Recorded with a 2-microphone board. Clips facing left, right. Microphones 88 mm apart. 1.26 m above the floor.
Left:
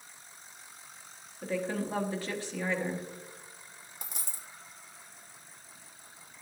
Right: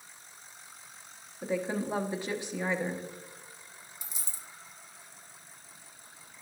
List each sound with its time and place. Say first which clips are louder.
1.4 s a woman speaking: right 1 dB; 20° right (ahead or behind), 1.1 m
4.0 s a dropped coin: left 4 dB; 55° left (ahead or behind), 1.0 m